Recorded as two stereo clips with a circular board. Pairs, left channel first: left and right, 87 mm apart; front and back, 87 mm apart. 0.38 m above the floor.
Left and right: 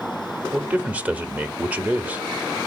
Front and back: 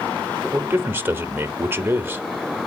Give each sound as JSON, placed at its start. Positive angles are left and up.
{"t": 0.5, "sound": "a man speaking", "azimuth_deg": -145, "distance_m": 0.8}